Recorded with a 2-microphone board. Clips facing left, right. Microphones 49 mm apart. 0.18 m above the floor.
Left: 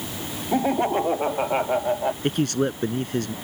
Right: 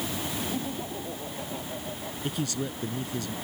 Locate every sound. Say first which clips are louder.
0.5 s laughter: left 12 dB; 75° left (ahead or behind); by 2.1 s 80° left
2.2 s a man speaking: left 7 dB; 55° left (ahead or behind)